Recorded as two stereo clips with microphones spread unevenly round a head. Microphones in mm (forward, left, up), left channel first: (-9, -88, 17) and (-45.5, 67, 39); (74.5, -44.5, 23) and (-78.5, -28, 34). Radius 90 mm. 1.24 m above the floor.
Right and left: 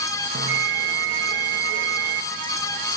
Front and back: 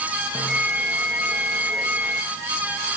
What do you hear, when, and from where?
0.3 s a bell: 80° left, 2 m